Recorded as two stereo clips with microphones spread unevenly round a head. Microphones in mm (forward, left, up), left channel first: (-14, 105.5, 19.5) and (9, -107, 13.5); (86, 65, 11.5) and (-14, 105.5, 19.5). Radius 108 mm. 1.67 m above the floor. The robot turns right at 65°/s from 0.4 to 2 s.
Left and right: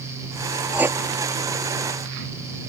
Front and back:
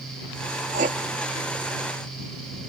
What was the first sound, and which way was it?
Writing, 170° right.